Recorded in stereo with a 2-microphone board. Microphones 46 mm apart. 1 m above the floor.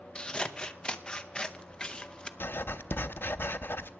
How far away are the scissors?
About 0.7 m.